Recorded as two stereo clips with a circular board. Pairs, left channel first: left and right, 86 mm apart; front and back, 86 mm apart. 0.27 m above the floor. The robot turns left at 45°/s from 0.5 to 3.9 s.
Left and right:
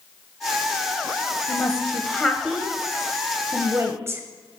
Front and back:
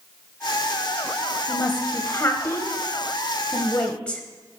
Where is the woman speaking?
45° left, 1.1 m; by 4.2 s 65° right, 1.1 m.